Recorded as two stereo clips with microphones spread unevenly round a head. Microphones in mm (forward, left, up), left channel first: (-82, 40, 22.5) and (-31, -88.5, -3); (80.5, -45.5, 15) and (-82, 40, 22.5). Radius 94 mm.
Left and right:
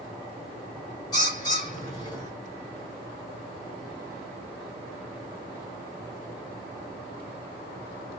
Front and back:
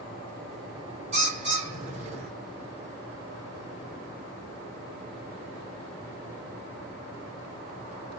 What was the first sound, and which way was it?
A bird, 125° left.